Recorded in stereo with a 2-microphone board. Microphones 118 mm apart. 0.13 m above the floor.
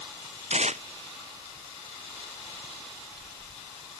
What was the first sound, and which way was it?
Tearing paper, 85° right.